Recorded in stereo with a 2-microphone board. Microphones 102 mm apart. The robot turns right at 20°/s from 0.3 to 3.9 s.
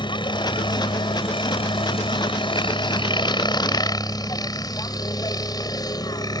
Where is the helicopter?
65° left; by 6.4 s 135° left.